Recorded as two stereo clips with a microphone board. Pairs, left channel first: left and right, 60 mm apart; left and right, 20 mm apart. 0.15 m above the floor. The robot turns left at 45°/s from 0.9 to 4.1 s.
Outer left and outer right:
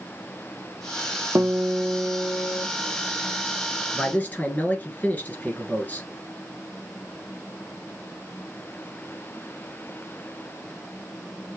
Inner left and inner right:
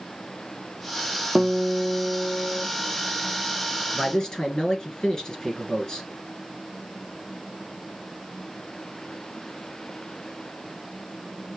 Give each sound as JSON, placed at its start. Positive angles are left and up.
{"t": 1.4, "sound": "a guitar", "azimuth_deg": -135, "distance_m": 0.7}
{"t": 3.9, "sound": "a man speaking", "side_deg": 20, "distance_m": 1.7}